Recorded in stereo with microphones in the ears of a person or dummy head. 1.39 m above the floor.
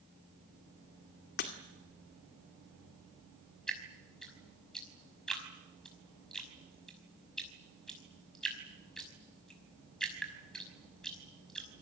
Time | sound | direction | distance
1.4 | breaking glass | 55° left (ahead or behind) | 2 m
3.7 | dripping | centre (ahead or behind) | 5.5 m